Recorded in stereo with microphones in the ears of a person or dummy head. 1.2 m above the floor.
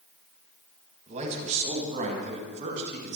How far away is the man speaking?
About 5.5 m.